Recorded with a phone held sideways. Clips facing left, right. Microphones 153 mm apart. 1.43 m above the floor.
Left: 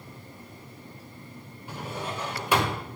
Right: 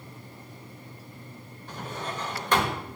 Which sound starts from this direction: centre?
A drawer, at 1.7 s.